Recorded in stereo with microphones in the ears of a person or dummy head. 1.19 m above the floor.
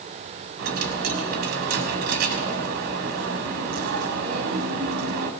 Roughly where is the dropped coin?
Right.